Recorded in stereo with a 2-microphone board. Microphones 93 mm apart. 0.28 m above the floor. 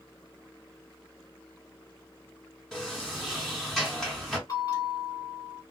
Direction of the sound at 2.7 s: 5° left (ahead or behind).